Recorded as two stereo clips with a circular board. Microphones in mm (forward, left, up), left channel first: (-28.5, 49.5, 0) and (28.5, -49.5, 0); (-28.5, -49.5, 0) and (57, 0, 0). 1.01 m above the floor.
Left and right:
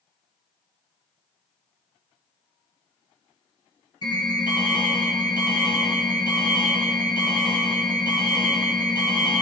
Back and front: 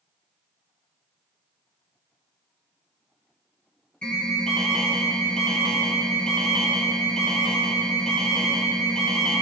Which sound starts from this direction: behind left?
An alarm, at 4.0 s.